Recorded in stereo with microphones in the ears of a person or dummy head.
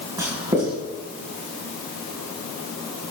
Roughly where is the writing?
Centre.